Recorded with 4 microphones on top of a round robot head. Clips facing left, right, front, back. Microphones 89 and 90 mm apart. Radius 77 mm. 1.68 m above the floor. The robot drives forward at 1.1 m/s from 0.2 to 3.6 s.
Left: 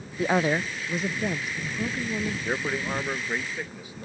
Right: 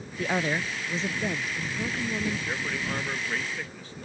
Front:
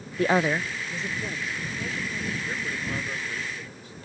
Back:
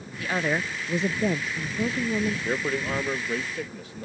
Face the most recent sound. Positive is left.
turn(degrees=165)